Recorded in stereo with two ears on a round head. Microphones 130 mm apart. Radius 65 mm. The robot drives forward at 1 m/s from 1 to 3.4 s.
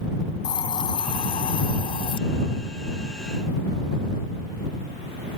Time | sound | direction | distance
0.4 | a hiss | 30° left (ahead or behind) | ?